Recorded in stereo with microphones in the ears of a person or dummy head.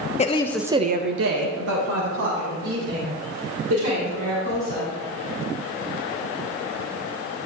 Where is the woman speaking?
30° left (ahead or behind), 0.9 m; by 4.9 s 80° right, 6 m.